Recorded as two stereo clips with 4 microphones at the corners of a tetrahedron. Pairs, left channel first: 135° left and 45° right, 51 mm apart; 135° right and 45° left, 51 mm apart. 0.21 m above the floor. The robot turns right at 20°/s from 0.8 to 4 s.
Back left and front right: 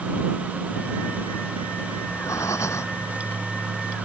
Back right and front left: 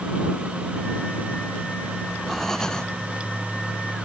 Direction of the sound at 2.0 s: 135° left.